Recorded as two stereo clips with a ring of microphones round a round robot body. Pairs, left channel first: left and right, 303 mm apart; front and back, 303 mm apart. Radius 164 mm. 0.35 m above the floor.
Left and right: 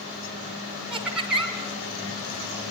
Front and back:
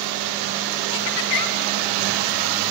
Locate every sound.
0.9 s laughter: 5° right, 3.5 m